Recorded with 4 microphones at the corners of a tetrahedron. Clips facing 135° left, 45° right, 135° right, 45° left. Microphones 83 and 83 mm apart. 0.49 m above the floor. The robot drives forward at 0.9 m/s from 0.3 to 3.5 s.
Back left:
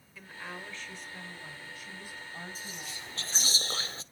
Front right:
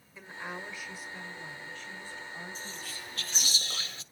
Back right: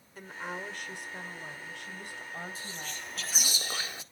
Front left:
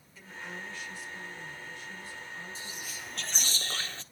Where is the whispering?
65° left, 1.0 m; by 4.0 s 155° left, 1.2 m.